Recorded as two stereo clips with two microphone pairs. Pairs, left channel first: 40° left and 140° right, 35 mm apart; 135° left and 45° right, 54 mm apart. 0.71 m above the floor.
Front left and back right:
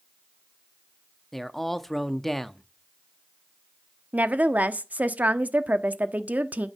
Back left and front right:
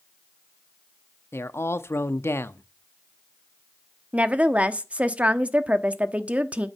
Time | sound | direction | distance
1.3 | a man speaking | 120° left | 0.7 m
4.1 | a woman speaking | 105° right | 1.0 m